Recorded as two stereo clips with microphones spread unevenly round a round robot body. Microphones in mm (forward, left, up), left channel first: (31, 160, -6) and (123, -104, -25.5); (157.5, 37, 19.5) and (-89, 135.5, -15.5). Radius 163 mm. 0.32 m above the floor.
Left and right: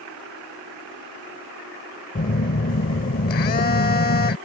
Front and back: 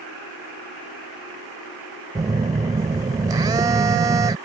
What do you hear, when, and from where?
2.1 s a phone buzzing: 115° left